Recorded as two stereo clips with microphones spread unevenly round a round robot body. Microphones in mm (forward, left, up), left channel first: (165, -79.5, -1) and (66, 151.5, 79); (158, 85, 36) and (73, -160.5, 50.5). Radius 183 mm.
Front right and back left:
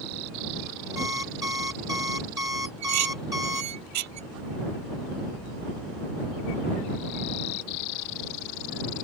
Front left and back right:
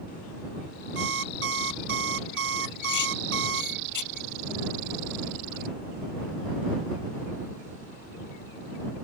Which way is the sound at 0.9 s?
165° right.